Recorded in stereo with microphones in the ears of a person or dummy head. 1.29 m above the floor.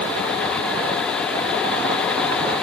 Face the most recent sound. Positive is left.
No sound to turn to.